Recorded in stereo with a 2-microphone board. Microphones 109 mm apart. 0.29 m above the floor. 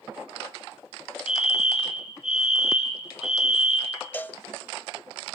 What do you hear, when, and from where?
1.3 s a fire alarm: 60° left (ahead or behind), 5 m
4.1 s a cowbell: 15° left (ahead or behind), 0.7 m